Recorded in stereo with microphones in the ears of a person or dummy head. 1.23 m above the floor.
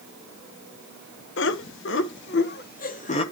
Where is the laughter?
60° left (ahead or behind), 1.2 m; by 3.2 s 40° left (ahead or behind), 1.1 m.